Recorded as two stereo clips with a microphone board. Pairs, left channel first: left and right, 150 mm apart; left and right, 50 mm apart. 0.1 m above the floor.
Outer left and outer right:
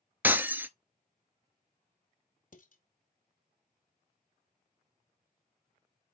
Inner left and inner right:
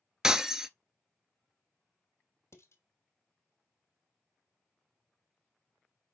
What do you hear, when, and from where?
0.2 s breaking glass: 15° right (ahead or behind), 0.6 m
2.5 s dishes clattering: 60° left (ahead or behind), 2 m